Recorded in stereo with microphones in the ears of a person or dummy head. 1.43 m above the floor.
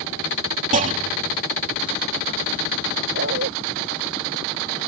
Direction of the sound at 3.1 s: 70° right (ahead or behind).